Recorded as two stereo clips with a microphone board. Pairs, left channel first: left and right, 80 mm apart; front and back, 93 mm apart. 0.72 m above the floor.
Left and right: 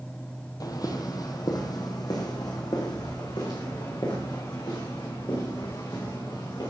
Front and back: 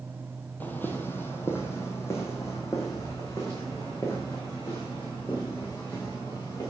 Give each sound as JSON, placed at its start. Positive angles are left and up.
{"t": 0.6, "sound": "footsteps", "azimuth_deg": 65, "distance_m": 1.1}